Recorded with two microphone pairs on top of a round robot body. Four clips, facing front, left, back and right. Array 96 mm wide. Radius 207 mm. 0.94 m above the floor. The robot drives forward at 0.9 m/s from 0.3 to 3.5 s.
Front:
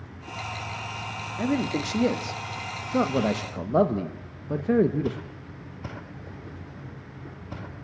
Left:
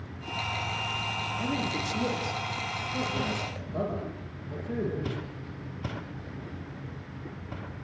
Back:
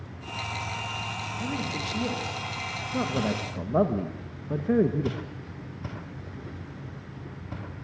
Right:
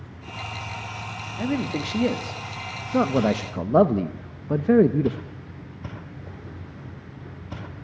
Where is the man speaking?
30° right, 2.5 m; by 5.2 s 80° right, 1.3 m.